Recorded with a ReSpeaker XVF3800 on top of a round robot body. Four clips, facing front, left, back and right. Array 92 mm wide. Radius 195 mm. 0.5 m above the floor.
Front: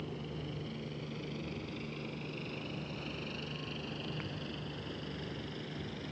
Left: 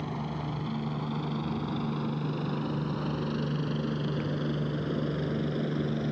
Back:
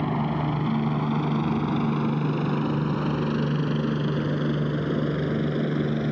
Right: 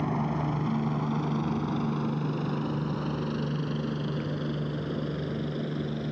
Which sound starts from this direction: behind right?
A helicopter, at 0.0 s.